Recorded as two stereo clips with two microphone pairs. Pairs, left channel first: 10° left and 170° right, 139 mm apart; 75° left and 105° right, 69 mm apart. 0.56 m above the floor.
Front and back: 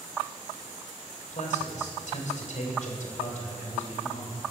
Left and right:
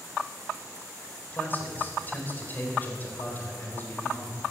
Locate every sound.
1.3 s a man speaking: 15° left, 3 m